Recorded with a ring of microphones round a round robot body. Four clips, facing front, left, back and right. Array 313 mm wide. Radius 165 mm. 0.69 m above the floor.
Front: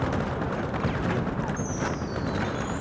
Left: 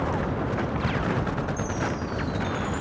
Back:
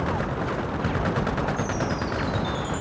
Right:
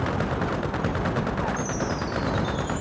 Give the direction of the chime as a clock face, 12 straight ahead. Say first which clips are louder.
Right 1 dB, back 3 dB; 5 o'clock.